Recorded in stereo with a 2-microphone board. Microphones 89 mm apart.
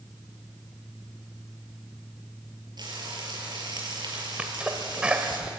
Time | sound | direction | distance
2.8 | frying | 55° right (ahead or behind) | 6 m
4.4 | a sneeze | 15° right (ahead or behind) | 1.8 m